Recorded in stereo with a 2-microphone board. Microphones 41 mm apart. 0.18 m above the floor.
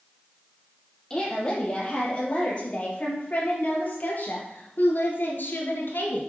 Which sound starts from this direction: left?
A woman speaking, at 1.1 s.